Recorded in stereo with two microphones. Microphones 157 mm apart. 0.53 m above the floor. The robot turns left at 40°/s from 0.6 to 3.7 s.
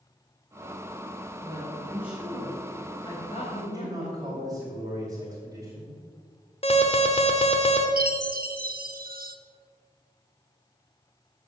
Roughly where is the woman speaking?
Behind right.